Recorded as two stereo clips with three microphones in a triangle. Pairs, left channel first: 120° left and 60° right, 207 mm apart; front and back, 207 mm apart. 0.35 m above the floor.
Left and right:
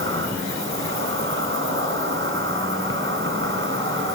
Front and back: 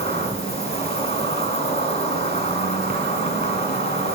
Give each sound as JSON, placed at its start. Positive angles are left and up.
{"t": 0.0, "sound": "an insect", "azimuth_deg": -60, "distance_m": 1.8}